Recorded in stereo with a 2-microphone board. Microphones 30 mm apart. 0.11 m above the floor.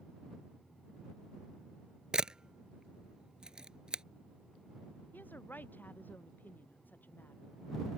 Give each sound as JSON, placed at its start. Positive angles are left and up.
{"t": 2.1, "sound": "a camera shutter", "side_deg": -30}
{"t": 5.1, "sound": "a woman speaking", "side_deg": 80}